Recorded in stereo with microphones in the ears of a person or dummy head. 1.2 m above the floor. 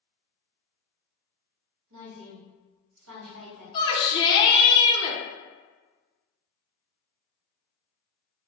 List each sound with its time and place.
1.9 s a woman speaking: 70° right (ahead or behind), 2.0 m
3.7 s a shout: 30° left (ahead or behind), 0.8 m